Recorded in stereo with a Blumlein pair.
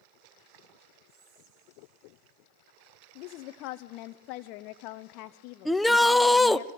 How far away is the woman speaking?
About 0.7 m.